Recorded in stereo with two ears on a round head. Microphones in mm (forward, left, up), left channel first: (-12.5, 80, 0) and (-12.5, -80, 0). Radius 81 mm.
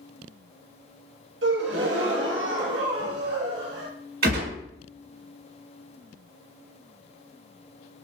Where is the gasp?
70° right (ahead or behind), 0.7 m.